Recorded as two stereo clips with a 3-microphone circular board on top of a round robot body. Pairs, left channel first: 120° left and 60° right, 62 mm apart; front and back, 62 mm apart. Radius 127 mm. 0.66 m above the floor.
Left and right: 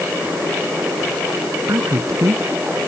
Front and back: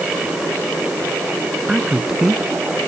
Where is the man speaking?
100° right.